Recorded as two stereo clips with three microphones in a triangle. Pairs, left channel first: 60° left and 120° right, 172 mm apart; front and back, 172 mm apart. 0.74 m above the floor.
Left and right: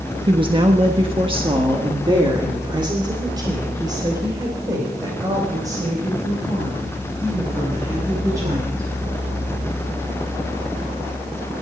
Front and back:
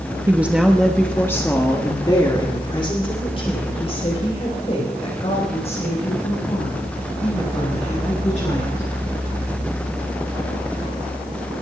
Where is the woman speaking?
120° right, 1.0 m; by 8.9 s 50° right, 7 m.